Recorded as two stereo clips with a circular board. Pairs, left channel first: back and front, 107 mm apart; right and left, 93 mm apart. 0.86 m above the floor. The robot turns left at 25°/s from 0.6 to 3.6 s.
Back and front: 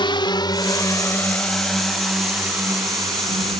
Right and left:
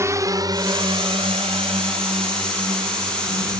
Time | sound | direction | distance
0.0 | a drone | 145° left | ?